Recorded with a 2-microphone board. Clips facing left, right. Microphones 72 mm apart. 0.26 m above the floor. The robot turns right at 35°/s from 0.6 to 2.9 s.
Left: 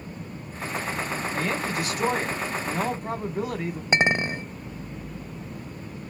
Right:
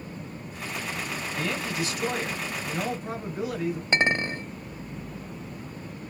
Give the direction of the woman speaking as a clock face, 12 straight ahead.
10 o'clock.